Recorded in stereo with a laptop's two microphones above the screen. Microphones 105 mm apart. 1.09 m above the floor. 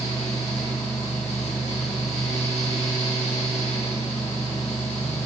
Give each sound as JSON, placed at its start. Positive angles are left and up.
{"t": 0.0, "sound": "a fan", "side_deg": 85, "distance_m": 1.9}